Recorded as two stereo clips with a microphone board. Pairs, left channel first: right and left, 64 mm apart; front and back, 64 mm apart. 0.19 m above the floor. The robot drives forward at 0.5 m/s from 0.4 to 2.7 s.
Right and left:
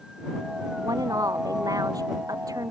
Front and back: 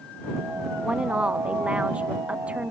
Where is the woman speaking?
105° left; by 2.7 s 110° left.